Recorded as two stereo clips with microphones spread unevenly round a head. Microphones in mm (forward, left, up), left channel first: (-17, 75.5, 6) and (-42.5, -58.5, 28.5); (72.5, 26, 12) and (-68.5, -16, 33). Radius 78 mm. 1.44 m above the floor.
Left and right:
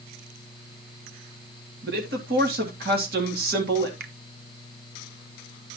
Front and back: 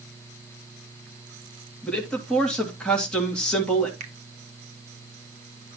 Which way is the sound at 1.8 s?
70° right.